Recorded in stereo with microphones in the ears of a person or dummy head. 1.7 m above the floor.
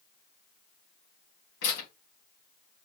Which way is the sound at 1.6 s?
70° left (ahead or behind).